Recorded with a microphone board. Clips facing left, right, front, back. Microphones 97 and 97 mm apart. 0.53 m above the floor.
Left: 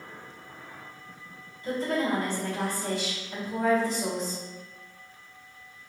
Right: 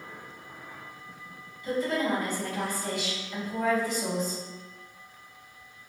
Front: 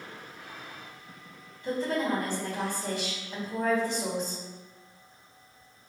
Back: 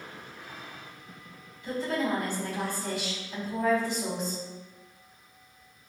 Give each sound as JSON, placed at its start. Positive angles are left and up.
{"t": 1.6, "sound": "a woman speaking", "azimuth_deg": 40, "distance_m": 2.0}